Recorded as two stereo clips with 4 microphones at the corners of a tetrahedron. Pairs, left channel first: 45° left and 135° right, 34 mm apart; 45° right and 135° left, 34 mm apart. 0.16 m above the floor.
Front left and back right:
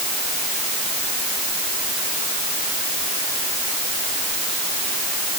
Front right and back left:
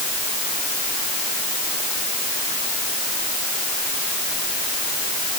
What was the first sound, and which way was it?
Only background noise.